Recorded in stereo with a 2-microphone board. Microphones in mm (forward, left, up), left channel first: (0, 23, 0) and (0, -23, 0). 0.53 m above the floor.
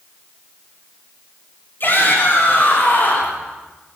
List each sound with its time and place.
1.8 s a shout: 55° left (ahead or behind), 5.5 m; by 3.4 s 50° left (ahead or behind), 5 m